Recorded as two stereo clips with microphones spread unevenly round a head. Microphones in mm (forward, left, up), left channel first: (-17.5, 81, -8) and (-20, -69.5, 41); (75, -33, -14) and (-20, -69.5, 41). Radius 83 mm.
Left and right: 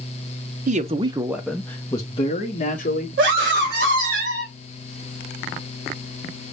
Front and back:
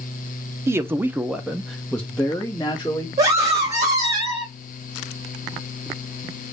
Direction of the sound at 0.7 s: 65° right.